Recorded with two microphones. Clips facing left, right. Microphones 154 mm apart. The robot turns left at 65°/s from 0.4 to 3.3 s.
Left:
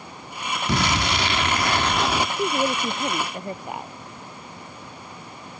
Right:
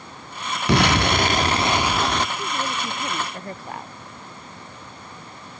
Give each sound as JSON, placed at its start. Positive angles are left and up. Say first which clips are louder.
{"t": 0.7, "sound": "an explosion", "louder": "right 6 dB", "azimuth_deg": -90}
{"t": 2.4, "sound": "a woman speaking", "louder": "left 5 dB", "azimuth_deg": 75}